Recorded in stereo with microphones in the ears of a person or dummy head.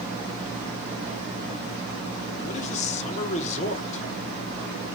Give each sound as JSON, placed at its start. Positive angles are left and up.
{"t": 2.4, "sound": "a man speaking", "side_deg": 40, "distance_m": 1.1}